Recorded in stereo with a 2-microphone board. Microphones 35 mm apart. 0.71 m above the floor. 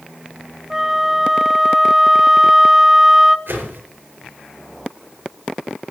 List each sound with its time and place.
0.7 s a flute: 10° right (ahead or behind), 0.6 m
3.5 s a whoosh: 85° right, 4.5 m